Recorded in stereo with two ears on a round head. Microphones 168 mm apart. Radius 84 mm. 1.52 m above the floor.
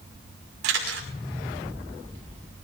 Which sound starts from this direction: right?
A camera shutter, at 0.6 s.